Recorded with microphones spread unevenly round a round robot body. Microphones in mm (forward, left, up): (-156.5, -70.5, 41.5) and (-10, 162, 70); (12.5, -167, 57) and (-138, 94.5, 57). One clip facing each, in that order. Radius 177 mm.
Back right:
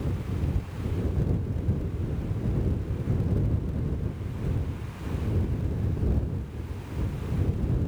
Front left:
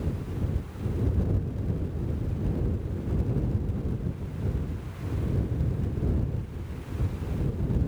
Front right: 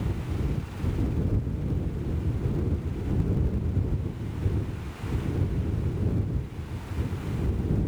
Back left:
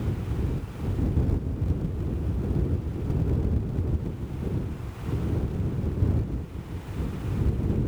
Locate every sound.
Only background noise.